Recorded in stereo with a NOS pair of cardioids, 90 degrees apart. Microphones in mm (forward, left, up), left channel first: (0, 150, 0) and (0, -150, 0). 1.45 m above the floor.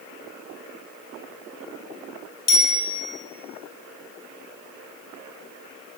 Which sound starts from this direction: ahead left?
A bicycle bell, at 2.5 s.